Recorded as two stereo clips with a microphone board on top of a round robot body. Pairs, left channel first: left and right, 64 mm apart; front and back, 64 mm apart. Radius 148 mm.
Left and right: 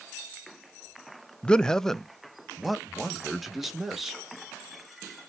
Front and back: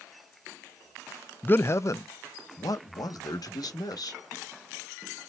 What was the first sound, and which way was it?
A man speaking, 30° left.